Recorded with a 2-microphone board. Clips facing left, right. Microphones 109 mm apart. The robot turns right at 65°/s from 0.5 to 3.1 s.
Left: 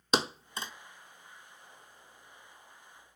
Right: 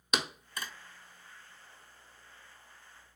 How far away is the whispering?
No whispering in this recording.